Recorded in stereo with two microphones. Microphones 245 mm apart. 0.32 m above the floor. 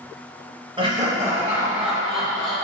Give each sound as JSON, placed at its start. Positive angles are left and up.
{"t": 0.8, "sound": "laughter", "side_deg": -20, "distance_m": 1.5}